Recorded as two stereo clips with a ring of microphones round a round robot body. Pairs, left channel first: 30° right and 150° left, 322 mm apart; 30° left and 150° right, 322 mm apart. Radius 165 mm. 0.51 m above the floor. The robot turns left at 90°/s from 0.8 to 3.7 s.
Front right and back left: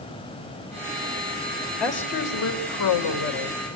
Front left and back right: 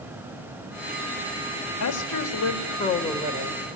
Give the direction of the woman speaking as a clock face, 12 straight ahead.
10 o'clock.